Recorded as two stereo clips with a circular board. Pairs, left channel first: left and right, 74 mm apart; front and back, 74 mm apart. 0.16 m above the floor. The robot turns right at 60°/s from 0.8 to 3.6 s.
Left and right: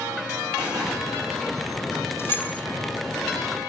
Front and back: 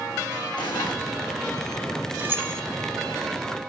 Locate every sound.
0.6 s an explosion: 15° right, 8.5 m; by 0.9 s 5° right, 8.5 m
2.2 s keys jangling: 130° left, 1.3 m; by 2.6 s 155° left, 1.3 m